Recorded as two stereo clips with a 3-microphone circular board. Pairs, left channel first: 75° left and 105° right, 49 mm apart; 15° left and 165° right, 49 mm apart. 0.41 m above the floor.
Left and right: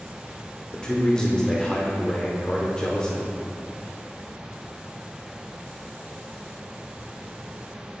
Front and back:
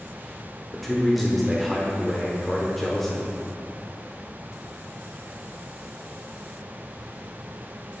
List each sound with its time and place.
0.7 s a man speaking: 90° left, 0.8 m